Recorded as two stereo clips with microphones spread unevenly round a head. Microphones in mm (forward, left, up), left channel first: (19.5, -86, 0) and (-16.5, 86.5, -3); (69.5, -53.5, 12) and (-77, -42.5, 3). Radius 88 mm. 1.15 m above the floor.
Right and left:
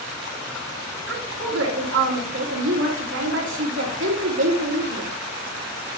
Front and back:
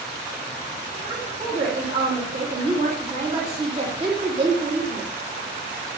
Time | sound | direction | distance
1.1 | a woman speaking | 115° left | 2.5 m